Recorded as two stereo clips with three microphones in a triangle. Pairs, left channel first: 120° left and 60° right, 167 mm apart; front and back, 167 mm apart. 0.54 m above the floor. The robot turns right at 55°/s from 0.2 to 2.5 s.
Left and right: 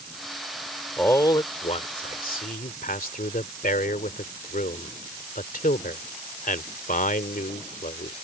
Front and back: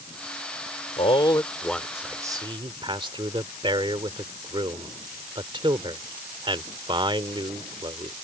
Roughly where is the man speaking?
Ahead left.